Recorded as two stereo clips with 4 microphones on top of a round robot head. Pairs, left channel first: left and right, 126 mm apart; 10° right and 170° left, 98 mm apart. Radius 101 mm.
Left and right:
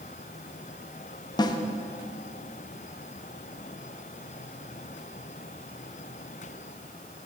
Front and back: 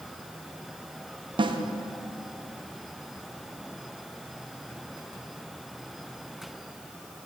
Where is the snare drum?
145° left, 0.7 m.